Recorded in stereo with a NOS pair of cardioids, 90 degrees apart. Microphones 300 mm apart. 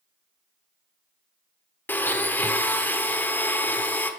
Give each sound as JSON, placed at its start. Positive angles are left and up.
{"t": 1.9, "sound": "a blender", "azimuth_deg": 5, "distance_m": 0.7}